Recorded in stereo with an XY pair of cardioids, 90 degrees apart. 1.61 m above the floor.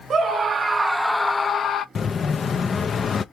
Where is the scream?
50° right, 1.0 m; by 1.9 s 55° left, 0.8 m.